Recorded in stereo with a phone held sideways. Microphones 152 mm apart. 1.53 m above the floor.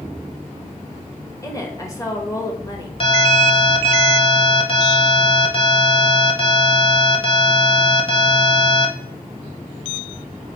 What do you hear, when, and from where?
1.4 s a woman speaking: 20° left (ahead or behind), 1.6 m
3.0 s an alarm: 40° left (ahead or behind), 1.0 m